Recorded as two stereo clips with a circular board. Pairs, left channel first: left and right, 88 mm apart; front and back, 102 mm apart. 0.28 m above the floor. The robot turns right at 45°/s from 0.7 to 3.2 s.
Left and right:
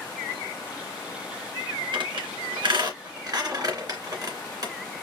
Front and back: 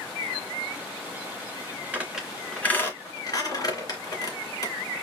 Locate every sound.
1.9 s a squeak: 110° right, 2.5 m; by 4.7 s 50° right, 2.5 m